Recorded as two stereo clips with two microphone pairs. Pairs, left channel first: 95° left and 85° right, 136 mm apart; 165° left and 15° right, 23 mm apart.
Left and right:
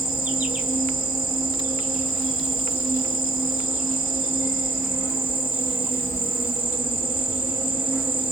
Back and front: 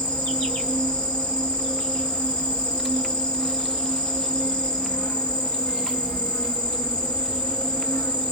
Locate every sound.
0.0 s an insect: 170° right, 1.9 m